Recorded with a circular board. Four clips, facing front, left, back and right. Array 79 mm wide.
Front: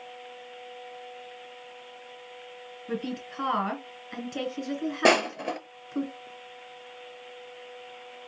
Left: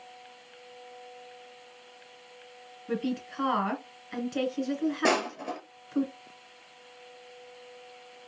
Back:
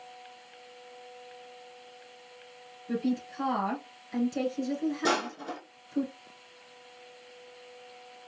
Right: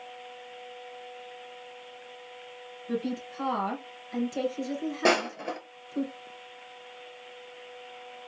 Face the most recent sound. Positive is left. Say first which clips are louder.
# right 5 dB, front 12 dB
turn(degrees=-10)